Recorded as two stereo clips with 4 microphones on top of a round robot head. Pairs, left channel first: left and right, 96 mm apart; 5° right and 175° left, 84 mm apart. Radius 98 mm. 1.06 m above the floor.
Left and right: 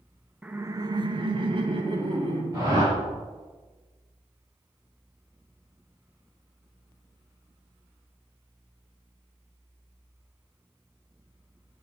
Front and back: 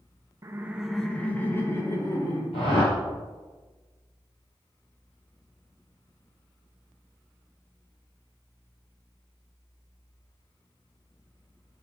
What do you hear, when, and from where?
0.4 s laughter: 160° right, 0.7 m; by 2.4 s 60° right, 2 m
2.5 s a whoosh: 30° right, 4.5 m